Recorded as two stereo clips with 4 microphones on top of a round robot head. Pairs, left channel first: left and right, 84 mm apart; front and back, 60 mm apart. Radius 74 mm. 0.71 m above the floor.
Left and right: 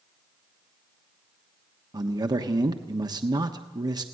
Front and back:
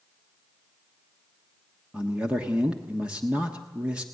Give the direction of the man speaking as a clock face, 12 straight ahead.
4 o'clock.